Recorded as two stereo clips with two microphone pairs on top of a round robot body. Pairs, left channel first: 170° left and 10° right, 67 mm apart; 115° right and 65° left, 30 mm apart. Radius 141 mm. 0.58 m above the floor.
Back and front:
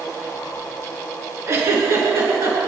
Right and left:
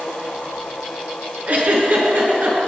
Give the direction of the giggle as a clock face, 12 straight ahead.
11 o'clock.